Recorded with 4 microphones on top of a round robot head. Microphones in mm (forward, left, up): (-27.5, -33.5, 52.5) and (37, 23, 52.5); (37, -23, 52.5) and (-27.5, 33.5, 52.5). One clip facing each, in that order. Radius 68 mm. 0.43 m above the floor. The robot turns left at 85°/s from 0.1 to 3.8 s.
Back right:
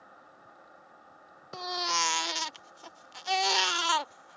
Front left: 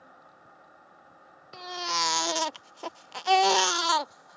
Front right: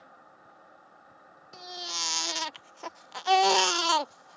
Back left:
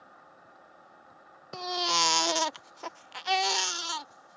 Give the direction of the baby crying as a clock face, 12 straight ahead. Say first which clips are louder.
Even, back left 12 dB; 7 o'clock.